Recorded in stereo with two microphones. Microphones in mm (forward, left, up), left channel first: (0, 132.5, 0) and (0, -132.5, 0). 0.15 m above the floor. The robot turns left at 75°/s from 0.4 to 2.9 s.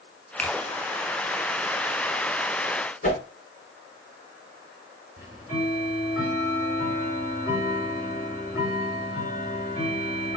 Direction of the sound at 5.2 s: 35° left (ahead or behind).